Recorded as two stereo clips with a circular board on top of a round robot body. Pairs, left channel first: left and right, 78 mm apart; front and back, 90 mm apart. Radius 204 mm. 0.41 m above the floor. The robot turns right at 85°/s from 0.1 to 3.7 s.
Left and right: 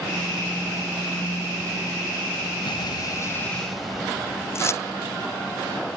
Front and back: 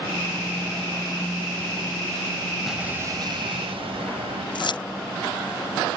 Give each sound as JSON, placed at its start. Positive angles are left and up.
{"t": 2.6, "sound": "an explosion", "azimuth_deg": 90}
{"t": 4.5, "sound": "keys jangling", "azimuth_deg": 35}